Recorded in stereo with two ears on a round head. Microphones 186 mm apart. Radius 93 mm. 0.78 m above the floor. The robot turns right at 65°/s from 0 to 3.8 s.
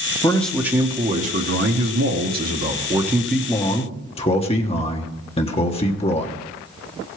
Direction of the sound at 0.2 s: 160° left.